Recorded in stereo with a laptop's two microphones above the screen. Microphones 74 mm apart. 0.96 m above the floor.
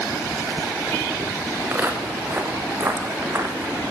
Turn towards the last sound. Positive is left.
turn(degrees=-45)  # may be behind; listen again after turning